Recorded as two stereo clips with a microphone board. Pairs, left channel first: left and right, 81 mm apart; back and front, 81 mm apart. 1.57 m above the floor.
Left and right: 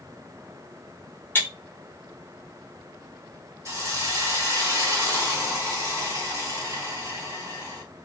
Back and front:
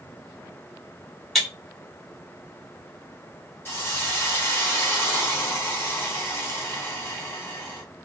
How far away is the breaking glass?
About 1.1 m.